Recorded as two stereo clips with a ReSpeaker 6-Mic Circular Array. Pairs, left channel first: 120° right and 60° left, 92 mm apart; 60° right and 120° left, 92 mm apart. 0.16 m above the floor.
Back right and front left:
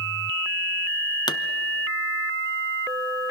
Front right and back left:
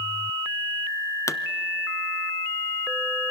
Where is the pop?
105° right, 0.6 m.